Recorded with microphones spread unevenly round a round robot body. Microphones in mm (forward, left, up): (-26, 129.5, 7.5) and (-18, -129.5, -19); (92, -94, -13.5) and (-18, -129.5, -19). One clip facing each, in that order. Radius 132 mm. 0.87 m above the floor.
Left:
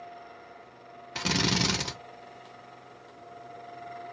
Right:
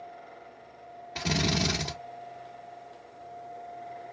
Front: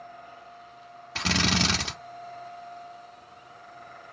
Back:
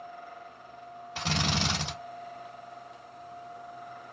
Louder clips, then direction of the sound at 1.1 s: Even, front 4 dB; 25° left.